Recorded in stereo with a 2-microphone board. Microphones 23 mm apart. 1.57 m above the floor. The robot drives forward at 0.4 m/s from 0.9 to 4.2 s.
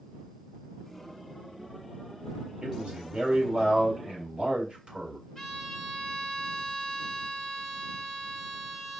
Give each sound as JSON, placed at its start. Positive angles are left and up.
{"t": 2.6, "sound": "a man speaking", "side_deg": -50, "distance_m": 3.5}
{"t": 5.3, "sound": "a violin", "side_deg": 15, "distance_m": 2.0}